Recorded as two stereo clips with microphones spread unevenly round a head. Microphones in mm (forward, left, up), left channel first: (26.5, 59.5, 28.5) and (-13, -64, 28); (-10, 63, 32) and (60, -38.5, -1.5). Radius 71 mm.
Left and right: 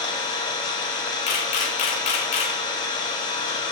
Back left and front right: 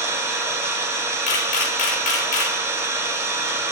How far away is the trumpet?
I don't hear a trumpet.